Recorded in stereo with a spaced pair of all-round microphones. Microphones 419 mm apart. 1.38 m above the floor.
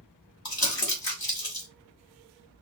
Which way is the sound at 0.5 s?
60° left (ahead or behind).